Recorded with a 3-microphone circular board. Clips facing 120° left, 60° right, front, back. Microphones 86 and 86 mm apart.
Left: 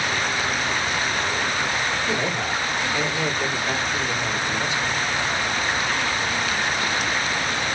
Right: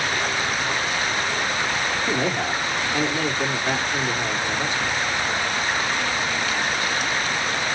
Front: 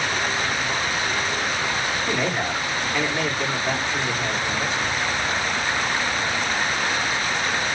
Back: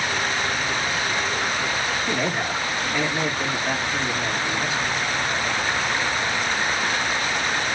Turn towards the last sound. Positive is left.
turn(degrees=-100)